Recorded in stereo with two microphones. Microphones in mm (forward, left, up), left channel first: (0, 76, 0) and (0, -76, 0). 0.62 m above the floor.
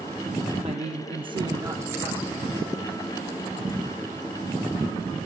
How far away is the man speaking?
About 0.7 m.